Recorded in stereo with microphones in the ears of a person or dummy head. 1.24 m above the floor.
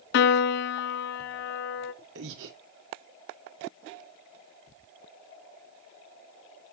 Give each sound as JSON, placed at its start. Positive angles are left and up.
{"t": 0.1, "sound": "a piano", "side_deg": 55, "distance_m": 0.5}
{"t": 2.1, "sound": "breathing", "side_deg": -65, "distance_m": 1.5}